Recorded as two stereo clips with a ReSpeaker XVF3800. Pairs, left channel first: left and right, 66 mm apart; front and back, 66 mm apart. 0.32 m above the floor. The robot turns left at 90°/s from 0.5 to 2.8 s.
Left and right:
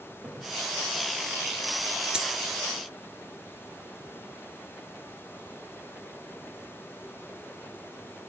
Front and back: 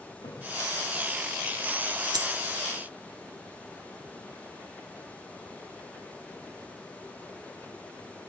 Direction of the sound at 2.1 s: 165° right.